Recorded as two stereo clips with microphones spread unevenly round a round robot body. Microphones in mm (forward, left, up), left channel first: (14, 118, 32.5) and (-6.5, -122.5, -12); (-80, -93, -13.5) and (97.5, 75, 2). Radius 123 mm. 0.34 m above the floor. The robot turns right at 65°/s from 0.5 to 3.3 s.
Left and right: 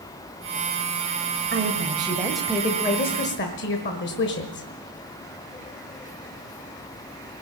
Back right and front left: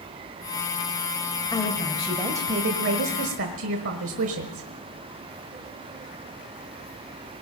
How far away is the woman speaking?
About 1.5 m.